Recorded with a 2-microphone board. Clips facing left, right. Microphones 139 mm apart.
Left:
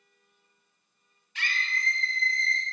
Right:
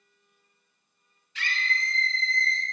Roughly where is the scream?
Left.